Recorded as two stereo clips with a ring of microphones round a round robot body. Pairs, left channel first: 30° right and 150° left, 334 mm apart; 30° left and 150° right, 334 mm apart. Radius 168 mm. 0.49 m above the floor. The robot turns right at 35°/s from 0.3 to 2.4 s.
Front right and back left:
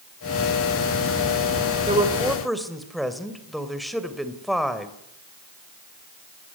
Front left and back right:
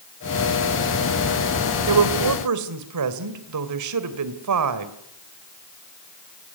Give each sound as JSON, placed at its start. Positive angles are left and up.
{"t": 1.9, "sound": "a woman speaking", "azimuth_deg": -140, "distance_m": 2.5}